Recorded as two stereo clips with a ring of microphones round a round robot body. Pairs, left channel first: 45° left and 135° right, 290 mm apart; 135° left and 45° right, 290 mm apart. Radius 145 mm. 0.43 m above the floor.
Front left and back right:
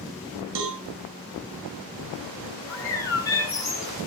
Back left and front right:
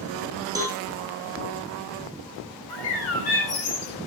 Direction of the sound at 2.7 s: 125° left.